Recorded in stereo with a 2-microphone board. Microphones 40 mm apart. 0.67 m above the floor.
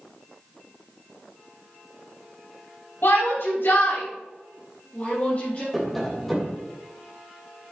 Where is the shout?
75° left (ahead or behind), 3 m; by 5.6 s 45° left (ahead or behind), 3 m.